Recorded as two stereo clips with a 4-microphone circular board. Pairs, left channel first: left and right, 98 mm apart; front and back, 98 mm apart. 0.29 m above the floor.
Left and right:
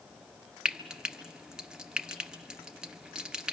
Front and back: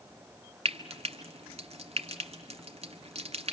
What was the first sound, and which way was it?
Frying, 170° right.